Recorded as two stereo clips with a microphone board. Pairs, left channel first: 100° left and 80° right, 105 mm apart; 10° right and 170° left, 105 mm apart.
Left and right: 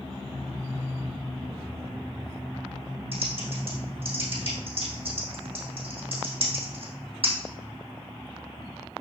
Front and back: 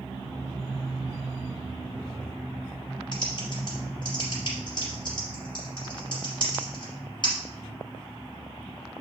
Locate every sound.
3.1 s typing on a keyboard: 55° right, 3.5 m